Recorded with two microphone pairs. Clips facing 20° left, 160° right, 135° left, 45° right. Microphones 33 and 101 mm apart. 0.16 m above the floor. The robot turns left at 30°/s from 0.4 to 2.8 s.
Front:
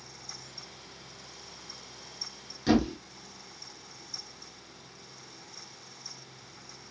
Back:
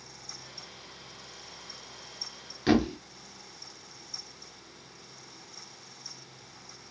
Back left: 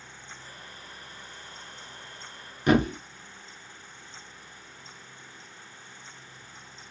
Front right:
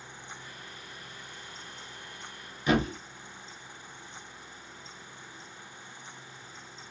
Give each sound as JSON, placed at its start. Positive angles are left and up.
{"t": 2.7, "sound": "a thud", "azimuth_deg": 140, "distance_m": 0.9}